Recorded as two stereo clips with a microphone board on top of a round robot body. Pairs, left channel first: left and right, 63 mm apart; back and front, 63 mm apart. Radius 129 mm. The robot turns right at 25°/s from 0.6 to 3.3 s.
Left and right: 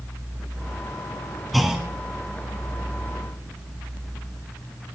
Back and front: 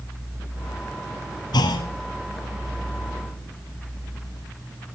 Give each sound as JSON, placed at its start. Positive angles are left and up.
{"t": 1.5, "sound": "a clunk", "azimuth_deg": 180, "distance_m": 0.8}